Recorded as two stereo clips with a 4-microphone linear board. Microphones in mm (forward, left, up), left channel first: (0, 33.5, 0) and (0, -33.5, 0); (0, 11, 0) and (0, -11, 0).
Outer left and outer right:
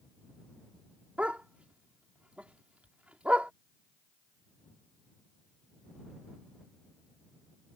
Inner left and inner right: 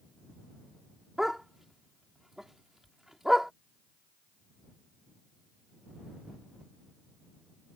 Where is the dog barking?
20° right (ahead or behind).